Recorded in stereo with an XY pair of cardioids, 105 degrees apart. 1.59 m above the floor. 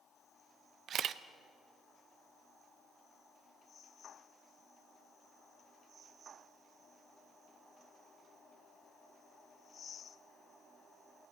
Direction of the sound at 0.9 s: 60° right.